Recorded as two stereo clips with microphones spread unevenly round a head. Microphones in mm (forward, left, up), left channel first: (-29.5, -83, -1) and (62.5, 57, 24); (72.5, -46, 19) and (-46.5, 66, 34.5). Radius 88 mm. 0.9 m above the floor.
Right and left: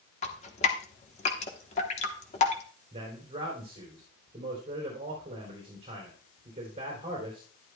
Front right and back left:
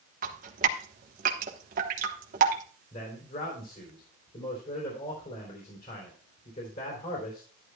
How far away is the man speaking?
About 3.5 m.